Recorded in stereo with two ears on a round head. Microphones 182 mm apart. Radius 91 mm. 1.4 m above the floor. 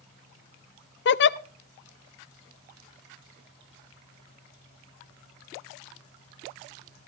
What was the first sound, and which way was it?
A giggle, 55° left (ahead or behind).